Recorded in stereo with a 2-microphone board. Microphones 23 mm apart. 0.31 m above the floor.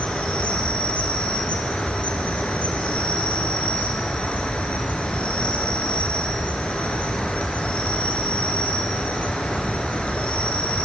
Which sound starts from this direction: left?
An insect, at 0.0 s.